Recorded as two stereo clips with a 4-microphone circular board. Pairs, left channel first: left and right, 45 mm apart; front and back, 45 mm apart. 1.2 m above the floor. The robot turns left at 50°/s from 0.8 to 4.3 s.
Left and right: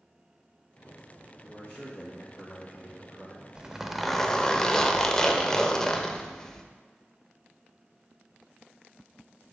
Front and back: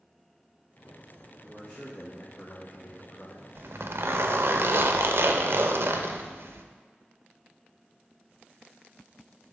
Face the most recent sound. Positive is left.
turn(degrees=165)